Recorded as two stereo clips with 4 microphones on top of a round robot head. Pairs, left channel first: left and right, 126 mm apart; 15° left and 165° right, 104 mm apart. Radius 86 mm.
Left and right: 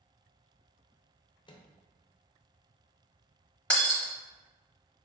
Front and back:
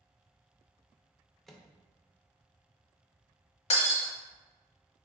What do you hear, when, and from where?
1.5 s a microwave: 100° left, 0.6 m
3.7 s breaking glass: 10° left, 0.7 m